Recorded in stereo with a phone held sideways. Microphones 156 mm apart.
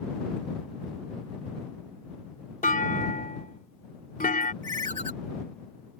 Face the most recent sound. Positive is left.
turn(degrees=-55)  # may be behind; listen again after turning